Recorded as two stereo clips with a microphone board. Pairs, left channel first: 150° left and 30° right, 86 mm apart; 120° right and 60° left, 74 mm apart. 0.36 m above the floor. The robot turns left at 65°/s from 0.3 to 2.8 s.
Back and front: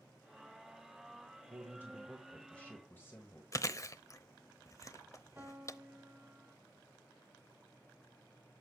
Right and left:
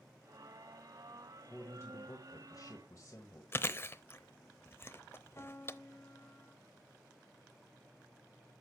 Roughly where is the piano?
Right.